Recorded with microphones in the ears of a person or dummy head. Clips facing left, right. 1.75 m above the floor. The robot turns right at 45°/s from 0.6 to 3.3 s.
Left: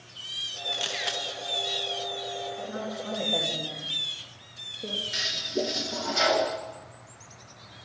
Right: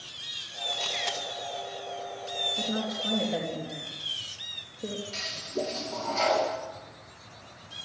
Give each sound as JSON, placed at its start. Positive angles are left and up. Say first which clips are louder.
{"t": 0.7, "sound": "a camera shutter", "louder": "even", "side_deg": 20, "distance_m": 2.5}
{"t": 2.6, "sound": "a woman speaking", "louder": "right 2 dB", "side_deg": -50, "distance_m": 3.5}
{"t": 5.1, "sound": "a toilet flushing", "louder": "left 2 dB", "side_deg": 15, "distance_m": 2.5}